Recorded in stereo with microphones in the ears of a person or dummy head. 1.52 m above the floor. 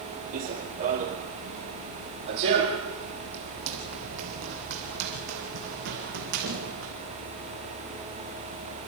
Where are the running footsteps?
45° right (ahead or behind), 2 m; by 6.9 s 70° right (ahead or behind), 5 m.